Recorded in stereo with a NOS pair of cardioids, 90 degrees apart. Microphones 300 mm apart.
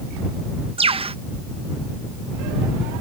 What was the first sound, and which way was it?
A bird, 20° right.